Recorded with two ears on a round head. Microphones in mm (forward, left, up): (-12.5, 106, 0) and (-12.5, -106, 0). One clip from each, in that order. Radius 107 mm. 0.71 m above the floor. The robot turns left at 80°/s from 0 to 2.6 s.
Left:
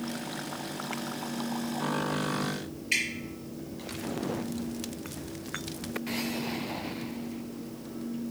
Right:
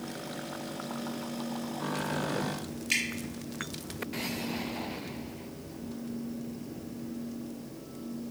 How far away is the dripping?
About 1.7 m.